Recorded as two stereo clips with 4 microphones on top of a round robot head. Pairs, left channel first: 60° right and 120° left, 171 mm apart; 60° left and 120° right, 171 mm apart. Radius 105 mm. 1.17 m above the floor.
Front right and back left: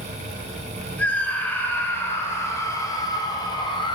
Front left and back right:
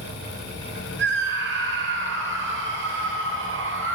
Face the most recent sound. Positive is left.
turn(degrees=-120)